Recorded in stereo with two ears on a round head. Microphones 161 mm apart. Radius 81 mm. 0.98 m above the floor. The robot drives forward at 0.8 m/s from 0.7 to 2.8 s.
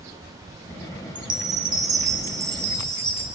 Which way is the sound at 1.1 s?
30° right (ahead or behind).